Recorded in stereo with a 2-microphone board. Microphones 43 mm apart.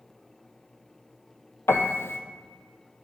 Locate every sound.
1.7 s a piano: 65° left (ahead or behind), 0.6 m